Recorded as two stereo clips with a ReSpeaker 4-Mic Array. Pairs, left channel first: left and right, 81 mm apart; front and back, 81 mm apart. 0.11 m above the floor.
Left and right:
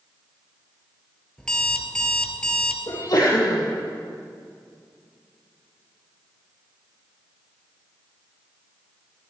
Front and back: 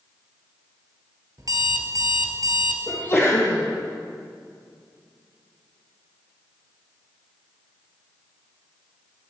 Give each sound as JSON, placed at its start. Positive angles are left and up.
{"t": 1.4, "sound": "an alarm clock", "azimuth_deg": 170, "distance_m": 1.5}
{"t": 2.9, "sound": "a sneeze", "azimuth_deg": 55, "distance_m": 3.5}